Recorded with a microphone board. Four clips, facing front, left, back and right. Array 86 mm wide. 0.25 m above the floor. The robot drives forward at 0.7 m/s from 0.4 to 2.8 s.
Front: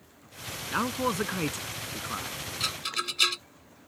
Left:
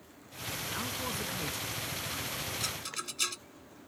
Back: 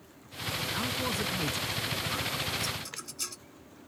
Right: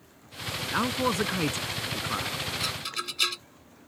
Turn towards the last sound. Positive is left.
turn(degrees=-25)